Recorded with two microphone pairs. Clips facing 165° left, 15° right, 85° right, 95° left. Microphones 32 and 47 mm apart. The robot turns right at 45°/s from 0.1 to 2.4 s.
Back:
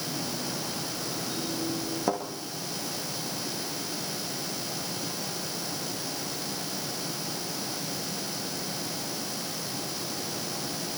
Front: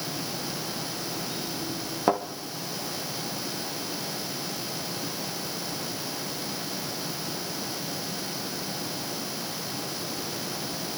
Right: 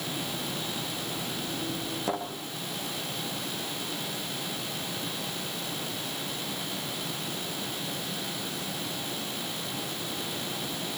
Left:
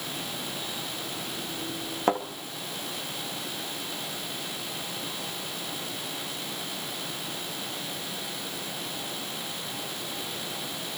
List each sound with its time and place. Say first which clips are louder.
2.1 s a thud: front 5 dB, left 7 dB; 50° left, 3 m; by 2.2 s 55° left, 3 m